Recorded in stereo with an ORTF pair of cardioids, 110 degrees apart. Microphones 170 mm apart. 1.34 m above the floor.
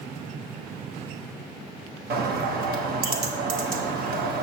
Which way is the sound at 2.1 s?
65° right.